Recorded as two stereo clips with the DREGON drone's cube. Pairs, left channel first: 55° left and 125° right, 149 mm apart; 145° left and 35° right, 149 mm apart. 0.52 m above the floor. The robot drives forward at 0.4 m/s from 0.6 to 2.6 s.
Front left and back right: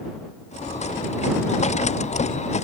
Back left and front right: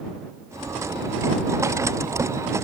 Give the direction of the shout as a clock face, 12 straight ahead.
No shout in this recording.